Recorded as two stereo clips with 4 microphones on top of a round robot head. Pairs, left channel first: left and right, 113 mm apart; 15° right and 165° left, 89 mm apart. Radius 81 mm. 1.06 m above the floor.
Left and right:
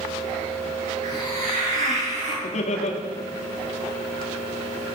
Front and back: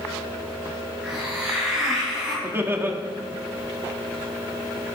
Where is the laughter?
100° left, 2.5 m.